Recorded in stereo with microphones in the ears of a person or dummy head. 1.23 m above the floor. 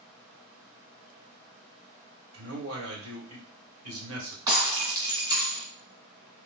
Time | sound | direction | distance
2.3 | a man speaking | 75° right (ahead or behind) | 2.0 m
4.5 | breaking glass | 20° right (ahead or behind) | 2 m